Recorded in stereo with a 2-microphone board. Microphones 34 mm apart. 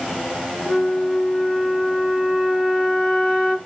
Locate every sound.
0.7 s a flute: 30° right (ahead or behind), 2.5 m